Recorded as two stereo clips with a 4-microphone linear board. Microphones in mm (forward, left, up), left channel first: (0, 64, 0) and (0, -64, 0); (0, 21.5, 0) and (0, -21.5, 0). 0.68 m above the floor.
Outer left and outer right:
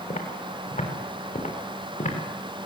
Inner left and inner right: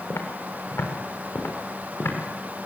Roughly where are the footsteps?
Left.